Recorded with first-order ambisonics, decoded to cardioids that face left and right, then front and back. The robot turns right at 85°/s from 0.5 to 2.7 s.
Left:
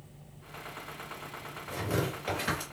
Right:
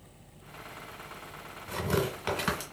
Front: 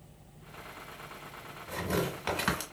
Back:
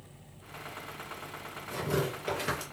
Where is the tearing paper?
100° right, 1.6 m; by 2.6 s 20° right, 1.6 m.